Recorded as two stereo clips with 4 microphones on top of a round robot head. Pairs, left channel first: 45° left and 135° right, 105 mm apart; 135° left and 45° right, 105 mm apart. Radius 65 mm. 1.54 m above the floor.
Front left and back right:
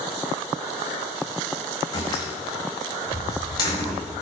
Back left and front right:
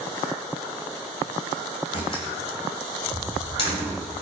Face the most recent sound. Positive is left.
turn(degrees=100)